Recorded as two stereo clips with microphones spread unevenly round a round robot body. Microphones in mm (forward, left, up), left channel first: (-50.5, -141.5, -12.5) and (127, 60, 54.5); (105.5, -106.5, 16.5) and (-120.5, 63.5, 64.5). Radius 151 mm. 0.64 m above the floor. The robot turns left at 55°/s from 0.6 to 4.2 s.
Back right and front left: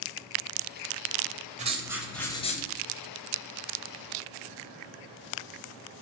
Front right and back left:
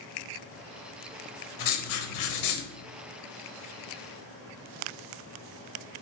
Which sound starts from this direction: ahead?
Writing, at 1.6 s.